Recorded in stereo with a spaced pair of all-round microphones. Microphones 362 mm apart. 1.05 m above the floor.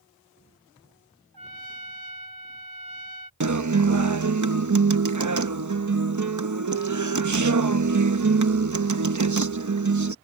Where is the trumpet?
80° right.